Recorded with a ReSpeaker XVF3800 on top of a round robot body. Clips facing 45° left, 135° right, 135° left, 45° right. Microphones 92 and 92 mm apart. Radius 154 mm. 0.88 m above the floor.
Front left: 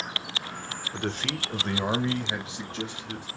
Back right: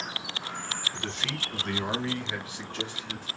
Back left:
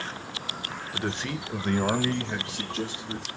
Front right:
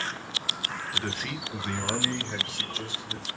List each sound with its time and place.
0.9 s a man speaking: 65° left, 0.9 m; by 3.3 s 115° left, 2.5 m